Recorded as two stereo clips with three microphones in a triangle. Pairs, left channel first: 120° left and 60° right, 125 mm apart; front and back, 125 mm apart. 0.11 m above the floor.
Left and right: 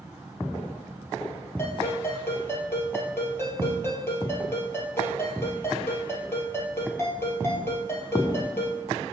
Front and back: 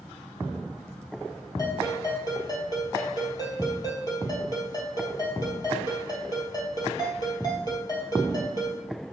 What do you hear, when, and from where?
1.6 s a ringtone: 55° left, 2 m